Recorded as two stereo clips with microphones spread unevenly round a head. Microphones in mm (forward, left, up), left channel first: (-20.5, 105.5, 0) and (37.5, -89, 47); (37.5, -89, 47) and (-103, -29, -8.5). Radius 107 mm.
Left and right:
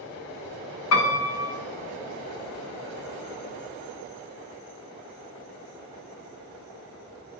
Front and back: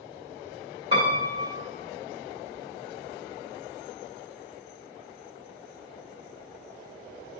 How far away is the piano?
About 2.5 m.